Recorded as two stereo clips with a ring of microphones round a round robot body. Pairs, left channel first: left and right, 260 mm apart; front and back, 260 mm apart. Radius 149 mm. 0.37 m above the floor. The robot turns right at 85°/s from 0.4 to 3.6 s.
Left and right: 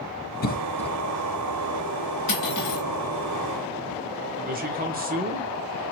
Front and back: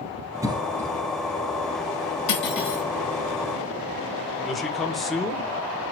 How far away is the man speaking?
About 1.5 m.